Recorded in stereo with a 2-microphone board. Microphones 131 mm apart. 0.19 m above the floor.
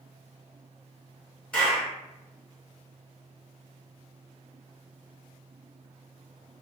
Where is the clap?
5° left (ahead or behind), 1.7 m.